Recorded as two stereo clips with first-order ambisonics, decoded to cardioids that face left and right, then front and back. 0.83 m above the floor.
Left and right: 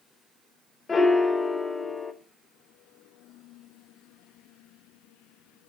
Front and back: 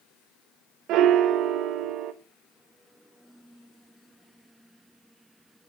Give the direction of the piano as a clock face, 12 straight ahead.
7 o'clock.